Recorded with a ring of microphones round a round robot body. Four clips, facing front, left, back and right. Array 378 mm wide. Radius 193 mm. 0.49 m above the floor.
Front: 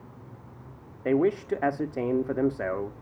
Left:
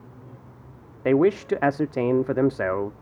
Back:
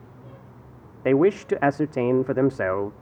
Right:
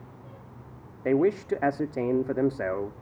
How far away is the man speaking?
About 0.8 m.